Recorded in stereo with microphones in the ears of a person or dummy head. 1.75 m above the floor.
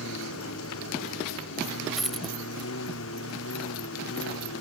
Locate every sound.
0.0 s a lawn mower: 80° left
2.0 s a dropped coin: centre (ahead or behind)